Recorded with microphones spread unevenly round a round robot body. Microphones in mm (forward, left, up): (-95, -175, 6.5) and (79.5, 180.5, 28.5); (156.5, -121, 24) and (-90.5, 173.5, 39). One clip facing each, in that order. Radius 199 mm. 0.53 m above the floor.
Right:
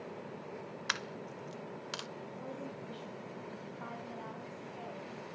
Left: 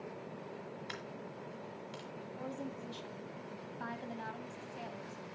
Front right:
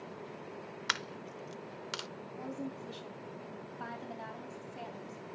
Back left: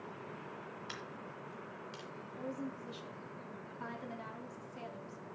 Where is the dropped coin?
65° right, 0.6 m.